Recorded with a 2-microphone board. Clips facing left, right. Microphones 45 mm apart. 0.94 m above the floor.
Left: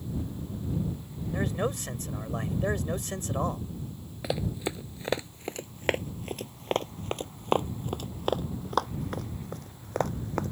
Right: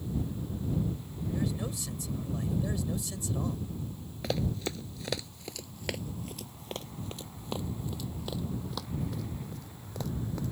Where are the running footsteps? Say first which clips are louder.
Left 1 dB; 10° left (ahead or behind); by 10.5 s 50° left (ahead or behind).